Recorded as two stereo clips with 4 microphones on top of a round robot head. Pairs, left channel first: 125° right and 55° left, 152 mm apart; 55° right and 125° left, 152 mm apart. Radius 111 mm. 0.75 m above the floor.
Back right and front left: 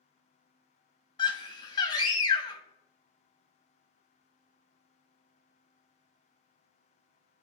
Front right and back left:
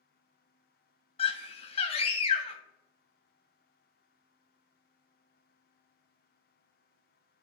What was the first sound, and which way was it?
A scream, 80° right.